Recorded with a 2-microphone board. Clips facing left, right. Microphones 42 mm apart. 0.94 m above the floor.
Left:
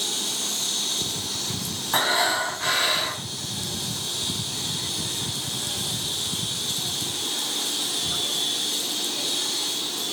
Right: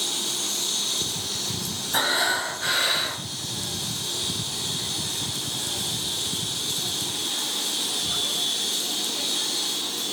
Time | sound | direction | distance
1.9 | breathing | 50° left (ahead or behind) | 4.5 m